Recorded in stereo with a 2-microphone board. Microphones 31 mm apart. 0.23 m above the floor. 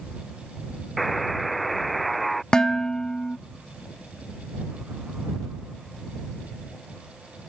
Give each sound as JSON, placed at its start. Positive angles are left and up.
{"t": 1.0, "sound": "a buzzer", "side_deg": 5}
{"t": 2.5, "sound": "dishes clattering", "side_deg": 25}